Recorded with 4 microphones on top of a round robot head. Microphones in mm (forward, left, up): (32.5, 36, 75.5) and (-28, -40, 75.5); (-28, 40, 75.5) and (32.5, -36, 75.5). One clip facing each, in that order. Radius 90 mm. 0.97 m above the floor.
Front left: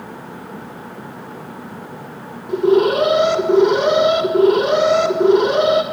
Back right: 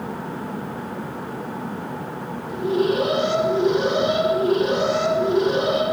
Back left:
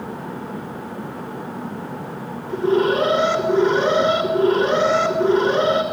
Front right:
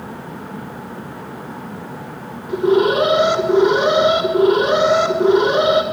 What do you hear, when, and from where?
2.5 s an alarm: 25° left, 6 m